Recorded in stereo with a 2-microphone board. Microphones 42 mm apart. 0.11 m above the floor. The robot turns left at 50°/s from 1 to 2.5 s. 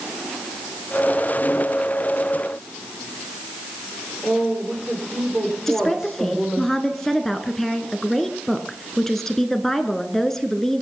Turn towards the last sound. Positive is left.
turn(degrees=10)  # may be behind; listen again after turning